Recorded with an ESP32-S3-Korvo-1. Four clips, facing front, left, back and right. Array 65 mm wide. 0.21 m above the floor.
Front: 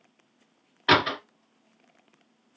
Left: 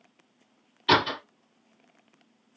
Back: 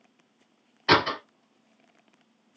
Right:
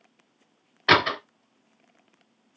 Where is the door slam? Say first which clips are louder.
Right 3 dB, even; 70° right, 1.9 m.